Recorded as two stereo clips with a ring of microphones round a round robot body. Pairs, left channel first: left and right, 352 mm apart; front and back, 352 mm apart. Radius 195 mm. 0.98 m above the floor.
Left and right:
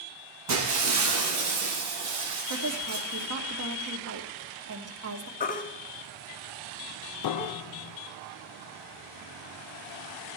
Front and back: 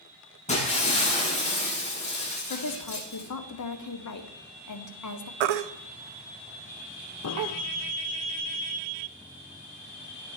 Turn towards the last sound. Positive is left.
turn(degrees=55)